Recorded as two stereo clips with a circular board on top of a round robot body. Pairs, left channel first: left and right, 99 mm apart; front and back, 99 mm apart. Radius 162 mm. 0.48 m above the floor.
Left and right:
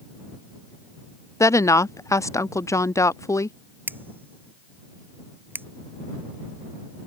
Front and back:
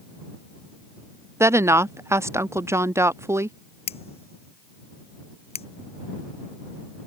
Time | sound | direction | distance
1.4 | a woman speaking | 130° left | ?
3.9 | scissors | 20° right | ?